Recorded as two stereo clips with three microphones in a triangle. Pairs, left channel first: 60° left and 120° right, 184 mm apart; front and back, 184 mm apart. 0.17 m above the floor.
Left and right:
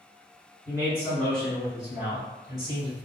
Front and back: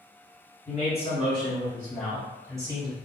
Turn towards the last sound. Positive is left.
turn(degrees=-150)